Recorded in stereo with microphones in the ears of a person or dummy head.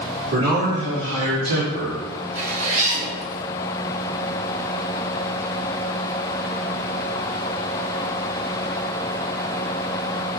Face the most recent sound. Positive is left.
turn(degrees=-45)  # may be behind; listen again after turning